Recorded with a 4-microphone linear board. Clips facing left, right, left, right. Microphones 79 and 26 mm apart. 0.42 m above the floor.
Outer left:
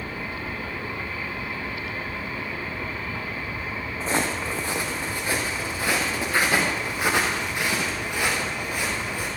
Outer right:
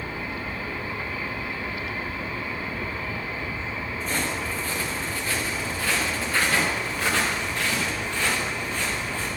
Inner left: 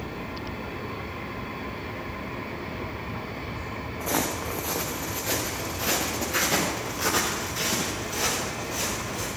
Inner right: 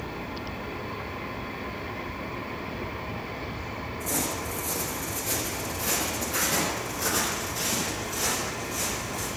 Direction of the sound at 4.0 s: 35° left (ahead or behind).